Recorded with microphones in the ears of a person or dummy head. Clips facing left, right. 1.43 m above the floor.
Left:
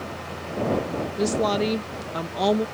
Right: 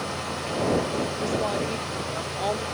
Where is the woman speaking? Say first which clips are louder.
Left 8 dB; 50° left (ahead or behind); by 2.7 s 65° left (ahead or behind).